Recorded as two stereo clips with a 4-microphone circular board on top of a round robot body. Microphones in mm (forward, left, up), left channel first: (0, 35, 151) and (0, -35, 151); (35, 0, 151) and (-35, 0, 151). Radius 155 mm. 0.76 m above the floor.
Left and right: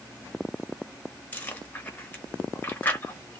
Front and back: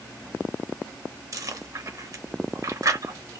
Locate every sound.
1.3 s chewing: 155° left, 1.2 m